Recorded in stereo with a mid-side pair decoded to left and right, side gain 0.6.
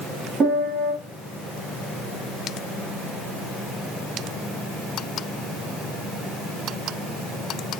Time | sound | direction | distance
0.4 | a piano | 40° right | 2.0 m